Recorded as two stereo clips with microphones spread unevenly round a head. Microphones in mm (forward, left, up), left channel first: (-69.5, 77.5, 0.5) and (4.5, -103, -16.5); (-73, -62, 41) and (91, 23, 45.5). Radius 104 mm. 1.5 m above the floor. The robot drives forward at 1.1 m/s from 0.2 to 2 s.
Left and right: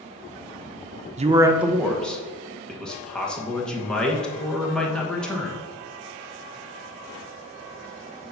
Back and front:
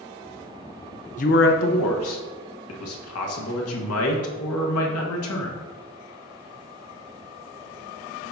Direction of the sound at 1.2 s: 115° right.